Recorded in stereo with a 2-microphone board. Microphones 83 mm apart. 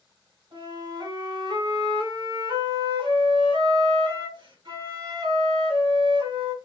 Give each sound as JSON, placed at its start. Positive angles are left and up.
{"t": 0.5, "sound": "a flute", "side_deg": -70, "distance_m": 2.0}